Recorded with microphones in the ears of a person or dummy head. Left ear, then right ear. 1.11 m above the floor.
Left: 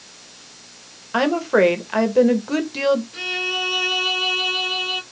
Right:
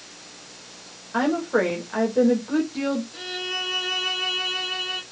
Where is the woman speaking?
70° left (ahead or behind), 1.1 m.